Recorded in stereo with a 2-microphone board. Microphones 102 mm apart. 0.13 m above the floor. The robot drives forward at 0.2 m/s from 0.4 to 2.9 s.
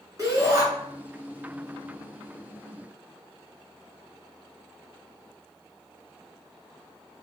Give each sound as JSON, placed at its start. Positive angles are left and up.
{"t": 0.2, "sound": "a shout", "side_deg": -35, "distance_m": 1.7}